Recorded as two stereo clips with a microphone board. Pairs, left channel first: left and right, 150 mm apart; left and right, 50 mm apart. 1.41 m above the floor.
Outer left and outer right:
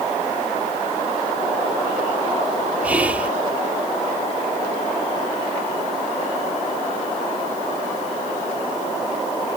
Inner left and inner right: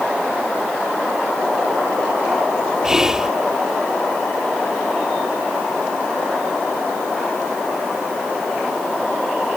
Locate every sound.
2.8 s whispering: 10° right (ahead or behind)